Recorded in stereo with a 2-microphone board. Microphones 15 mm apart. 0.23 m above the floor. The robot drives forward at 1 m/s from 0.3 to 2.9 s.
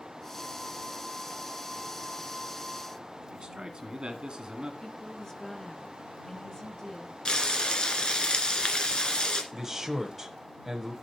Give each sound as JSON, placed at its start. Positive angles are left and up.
{"t": 3.3, "sound": "a man speaking", "side_deg": -55, "distance_m": 1.9}
{"t": 4.8, "sound": "a woman speaking", "side_deg": 35, "distance_m": 2.0}
{"t": 7.2, "sound": "frying", "side_deg": 60, "distance_m": 1.9}
{"t": 9.5, "sound": "a man speaking", "side_deg": -20, "distance_m": 1.4}